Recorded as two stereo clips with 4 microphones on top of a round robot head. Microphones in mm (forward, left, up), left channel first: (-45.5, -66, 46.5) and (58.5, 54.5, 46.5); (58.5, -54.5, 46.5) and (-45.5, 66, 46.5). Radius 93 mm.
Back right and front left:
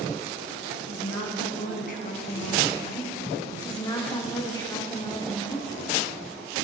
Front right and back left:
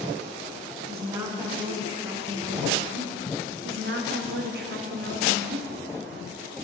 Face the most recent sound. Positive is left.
turn(degrees=160)